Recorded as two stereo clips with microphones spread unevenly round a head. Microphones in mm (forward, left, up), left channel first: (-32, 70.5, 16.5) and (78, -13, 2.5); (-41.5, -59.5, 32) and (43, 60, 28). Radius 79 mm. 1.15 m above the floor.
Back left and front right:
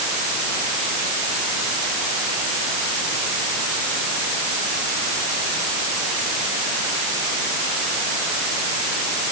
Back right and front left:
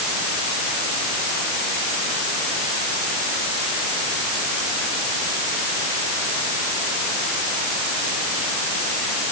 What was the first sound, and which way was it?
Only background noise.